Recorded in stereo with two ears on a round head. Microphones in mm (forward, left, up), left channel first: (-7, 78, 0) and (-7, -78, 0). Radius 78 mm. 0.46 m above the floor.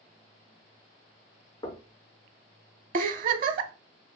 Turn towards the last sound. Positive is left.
turn(degrees=-50)  # may be behind; listen again after turning